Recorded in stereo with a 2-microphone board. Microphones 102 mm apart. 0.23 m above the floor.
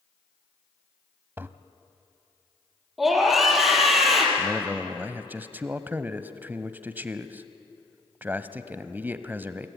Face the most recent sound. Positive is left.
turn(degrees=-20)  # may be behind; listen again after turning